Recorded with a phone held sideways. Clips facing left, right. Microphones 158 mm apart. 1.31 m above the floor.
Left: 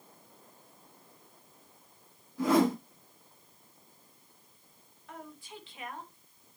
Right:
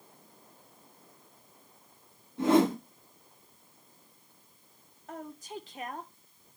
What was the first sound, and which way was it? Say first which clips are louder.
A whoosh: right 2 dB; 25° right (ahead or behind).